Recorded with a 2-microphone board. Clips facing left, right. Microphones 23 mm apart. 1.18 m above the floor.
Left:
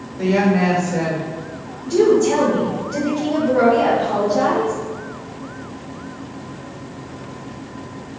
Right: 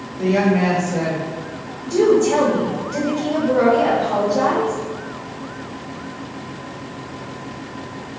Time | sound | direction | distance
0.2 | a woman speaking | 80° left | 1.6 m
1.8 | a woman speaking | 35° left (ahead or behind) | 1.2 m